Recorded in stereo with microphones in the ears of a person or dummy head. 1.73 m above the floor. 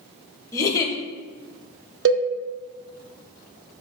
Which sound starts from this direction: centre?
A giggle, at 0.5 s.